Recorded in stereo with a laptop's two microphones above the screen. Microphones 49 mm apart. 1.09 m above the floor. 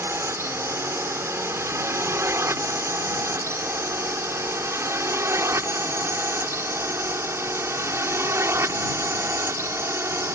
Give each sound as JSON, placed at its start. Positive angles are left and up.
{"t": 0.0, "sound": "a drone", "side_deg": -70}